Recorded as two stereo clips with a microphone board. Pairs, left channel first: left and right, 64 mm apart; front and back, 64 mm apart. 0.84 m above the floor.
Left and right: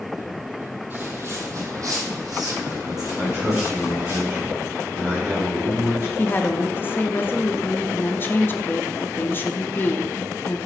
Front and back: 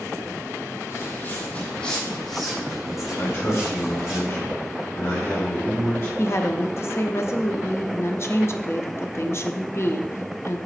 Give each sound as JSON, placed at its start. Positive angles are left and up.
{"t": 0.9, "sound": "footsteps", "azimuth_deg": -35, "distance_m": 1.5}
{"t": 3.2, "sound": "a man speaking", "azimuth_deg": -40, "distance_m": 2.0}
{"t": 6.2, "sound": "a woman speaking", "azimuth_deg": 40, "distance_m": 0.6}